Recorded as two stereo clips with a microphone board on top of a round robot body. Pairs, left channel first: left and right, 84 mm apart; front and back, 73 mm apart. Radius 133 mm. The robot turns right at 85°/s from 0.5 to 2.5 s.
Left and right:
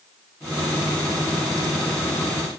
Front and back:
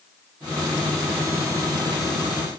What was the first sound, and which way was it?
Only background noise.